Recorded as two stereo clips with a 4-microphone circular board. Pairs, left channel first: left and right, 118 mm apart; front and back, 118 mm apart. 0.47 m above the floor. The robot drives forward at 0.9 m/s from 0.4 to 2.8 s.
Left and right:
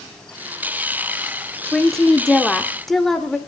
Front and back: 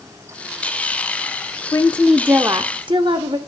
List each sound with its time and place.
1.7 s a woman speaking: 5° left, 0.7 m; by 3.4 s 175° left, 0.9 m